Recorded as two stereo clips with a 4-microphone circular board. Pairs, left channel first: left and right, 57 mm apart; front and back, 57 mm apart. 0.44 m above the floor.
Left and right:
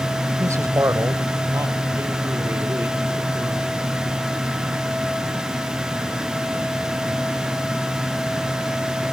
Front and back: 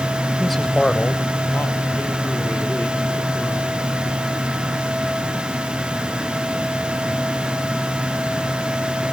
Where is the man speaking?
95° right, 1.4 m; by 3.8 s 35° right, 5 m.